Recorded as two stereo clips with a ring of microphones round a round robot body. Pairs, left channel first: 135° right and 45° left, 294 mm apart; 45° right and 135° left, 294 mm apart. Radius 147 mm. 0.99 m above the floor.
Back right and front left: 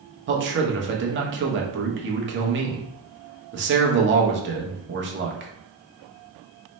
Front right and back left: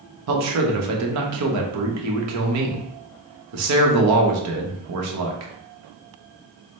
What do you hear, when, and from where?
0.3 s a man speaking: 100° left, 0.8 m